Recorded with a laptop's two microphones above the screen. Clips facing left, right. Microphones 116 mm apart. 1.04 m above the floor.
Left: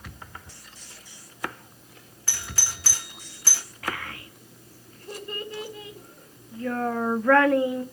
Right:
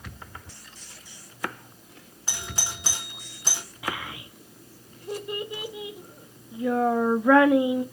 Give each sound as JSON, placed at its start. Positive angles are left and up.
{"t": 2.3, "sound": "a doorbell", "side_deg": -20, "distance_m": 0.7}
{"t": 3.8, "sound": "a child speaking", "side_deg": -10, "distance_m": 0.6}